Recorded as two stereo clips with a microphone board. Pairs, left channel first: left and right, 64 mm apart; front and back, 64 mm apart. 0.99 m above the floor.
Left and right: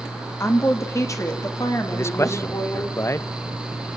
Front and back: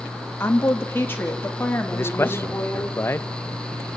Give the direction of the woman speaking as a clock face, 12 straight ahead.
10 o'clock.